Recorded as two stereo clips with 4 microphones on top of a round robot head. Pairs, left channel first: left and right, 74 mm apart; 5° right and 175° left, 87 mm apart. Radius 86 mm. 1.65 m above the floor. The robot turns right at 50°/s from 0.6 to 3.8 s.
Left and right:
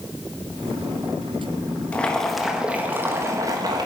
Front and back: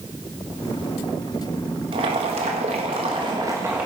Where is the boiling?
160° left, 1.3 m; by 3.9 s 105° right, 1.3 m.